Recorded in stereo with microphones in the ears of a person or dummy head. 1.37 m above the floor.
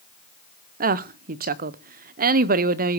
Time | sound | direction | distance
0.8 | a woman speaking | 40° right (ahead or behind) | 0.6 m